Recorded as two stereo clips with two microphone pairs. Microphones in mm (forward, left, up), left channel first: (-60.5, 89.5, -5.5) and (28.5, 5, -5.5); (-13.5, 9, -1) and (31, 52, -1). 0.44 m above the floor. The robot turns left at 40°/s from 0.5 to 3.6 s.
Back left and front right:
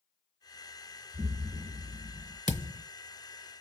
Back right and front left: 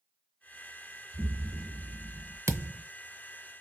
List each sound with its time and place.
1.1 s an explosion: straight ahead, 0.9 m; by 2.4 s 50° right, 0.9 m
2.5 s a thud: 15° left, 0.6 m; by 2.8 s straight ahead, 0.6 m